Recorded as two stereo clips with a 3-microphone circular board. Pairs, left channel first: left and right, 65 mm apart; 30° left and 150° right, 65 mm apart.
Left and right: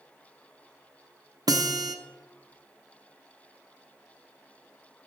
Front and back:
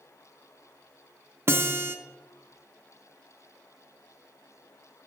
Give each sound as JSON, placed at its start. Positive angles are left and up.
{"t": 1.5, "sound": "a guitar", "azimuth_deg": -100, "distance_m": 0.9}